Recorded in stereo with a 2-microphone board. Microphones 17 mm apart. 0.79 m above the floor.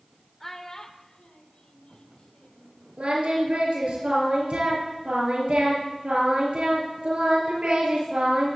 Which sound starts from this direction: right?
Singing, at 3.0 s.